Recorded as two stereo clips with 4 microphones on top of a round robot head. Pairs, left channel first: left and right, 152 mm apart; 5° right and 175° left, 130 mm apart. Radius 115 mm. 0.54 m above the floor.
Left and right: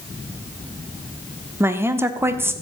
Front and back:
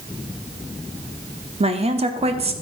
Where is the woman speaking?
160° right, 1.2 m.